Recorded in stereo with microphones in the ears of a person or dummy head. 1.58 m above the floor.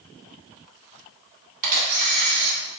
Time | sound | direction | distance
1.6 | a camera shutter | 45° right (ahead or behind) | 1.7 m